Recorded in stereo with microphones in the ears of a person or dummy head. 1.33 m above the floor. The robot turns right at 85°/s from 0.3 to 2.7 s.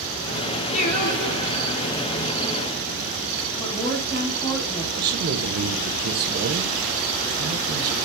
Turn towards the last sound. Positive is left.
turn(degrees=-50)  # may be behind; listen again after turning